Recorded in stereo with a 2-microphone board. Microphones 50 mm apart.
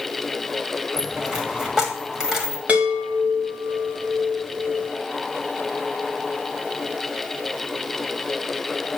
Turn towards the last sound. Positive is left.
turn(degrees=-30)  # may be behind; listen again after turning